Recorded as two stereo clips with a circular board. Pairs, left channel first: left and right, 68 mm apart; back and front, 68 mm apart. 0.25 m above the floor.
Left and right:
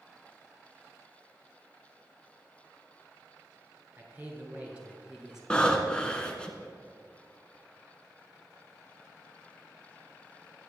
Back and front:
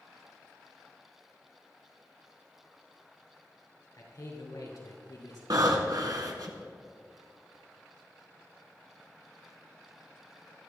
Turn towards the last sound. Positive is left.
turn(degrees=15)